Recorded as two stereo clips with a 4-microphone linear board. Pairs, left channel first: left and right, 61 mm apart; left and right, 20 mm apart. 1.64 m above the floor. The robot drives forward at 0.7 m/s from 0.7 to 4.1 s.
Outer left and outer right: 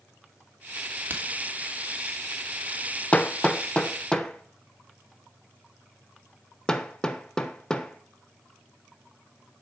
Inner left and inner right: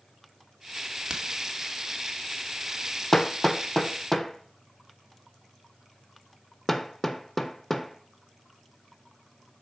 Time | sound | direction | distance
1.1 | a crack | 35° right (ahead or behind) | 2 m
3.1 | hammering | 25° left (ahead or behind) | 0.5 m